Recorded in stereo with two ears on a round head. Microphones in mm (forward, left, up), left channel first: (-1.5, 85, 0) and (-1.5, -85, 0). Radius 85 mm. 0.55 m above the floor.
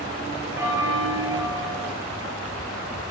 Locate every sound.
0.6 s a bell: 15° right (ahead or behind), 1.7 m